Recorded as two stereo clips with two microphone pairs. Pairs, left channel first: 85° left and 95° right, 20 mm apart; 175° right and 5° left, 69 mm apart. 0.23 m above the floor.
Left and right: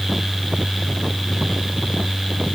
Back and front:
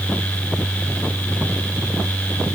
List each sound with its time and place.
Only background noise.